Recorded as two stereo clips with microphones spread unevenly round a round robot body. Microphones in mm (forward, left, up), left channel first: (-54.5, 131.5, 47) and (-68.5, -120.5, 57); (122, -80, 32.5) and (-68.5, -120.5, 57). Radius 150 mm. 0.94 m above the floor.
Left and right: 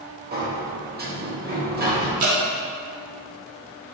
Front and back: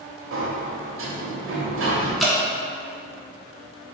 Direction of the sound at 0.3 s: 150° right.